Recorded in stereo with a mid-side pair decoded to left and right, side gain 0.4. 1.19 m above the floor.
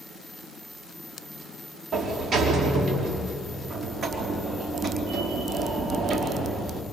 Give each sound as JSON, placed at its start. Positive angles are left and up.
{"t": 1.9, "sound": "a sliding door", "azimuth_deg": -55, "distance_m": 3.5}